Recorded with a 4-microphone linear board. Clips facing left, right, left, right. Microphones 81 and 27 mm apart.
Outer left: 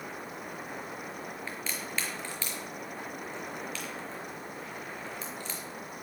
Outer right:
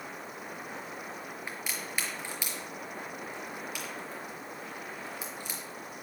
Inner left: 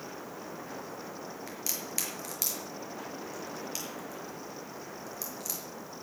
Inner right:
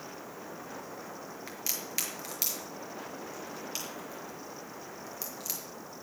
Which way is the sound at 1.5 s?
15° right (ahead or behind).